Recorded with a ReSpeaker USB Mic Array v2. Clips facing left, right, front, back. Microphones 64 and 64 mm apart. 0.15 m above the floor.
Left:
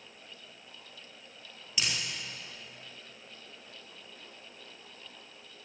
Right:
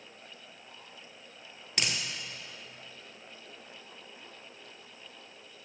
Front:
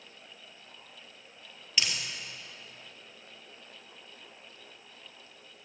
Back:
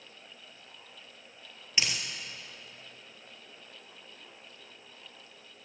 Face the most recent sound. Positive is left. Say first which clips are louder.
# right 1 dB, even
turn(degrees=-115)